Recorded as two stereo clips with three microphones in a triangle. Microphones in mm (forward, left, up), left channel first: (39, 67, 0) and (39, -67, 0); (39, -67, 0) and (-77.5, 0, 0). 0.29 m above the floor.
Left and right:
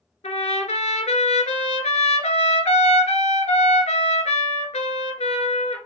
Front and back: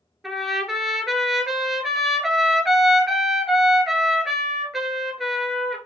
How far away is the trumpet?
About 0.8 m.